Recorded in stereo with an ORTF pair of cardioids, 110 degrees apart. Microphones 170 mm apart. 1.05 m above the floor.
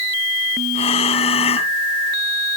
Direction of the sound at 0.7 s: 35° left.